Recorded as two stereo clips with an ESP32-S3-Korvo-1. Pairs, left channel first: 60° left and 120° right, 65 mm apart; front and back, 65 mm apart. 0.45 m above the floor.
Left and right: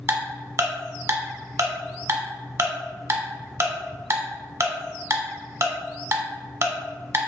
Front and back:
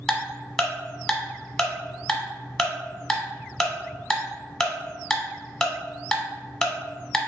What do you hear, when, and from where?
0.1 s ticking: 80° right, 0.9 m